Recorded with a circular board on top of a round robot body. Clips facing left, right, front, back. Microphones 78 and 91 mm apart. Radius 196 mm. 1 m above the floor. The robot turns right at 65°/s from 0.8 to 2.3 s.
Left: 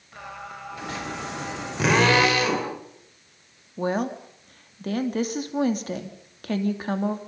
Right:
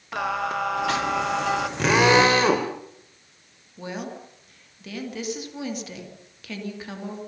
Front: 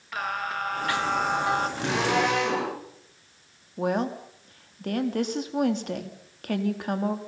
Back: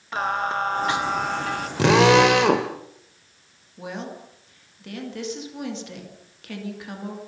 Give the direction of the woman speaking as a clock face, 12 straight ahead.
11 o'clock.